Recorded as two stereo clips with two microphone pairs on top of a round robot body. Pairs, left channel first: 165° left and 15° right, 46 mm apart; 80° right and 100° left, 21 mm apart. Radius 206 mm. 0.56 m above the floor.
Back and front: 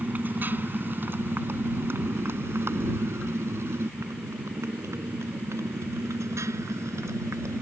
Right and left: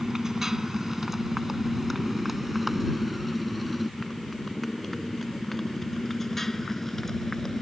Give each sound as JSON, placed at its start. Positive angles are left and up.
{"t": 0.0, "sound": "a motorcycle", "azimuth_deg": 40}